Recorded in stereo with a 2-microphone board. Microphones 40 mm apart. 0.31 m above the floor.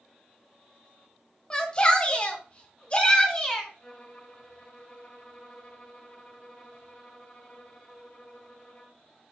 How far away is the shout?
About 2.5 m.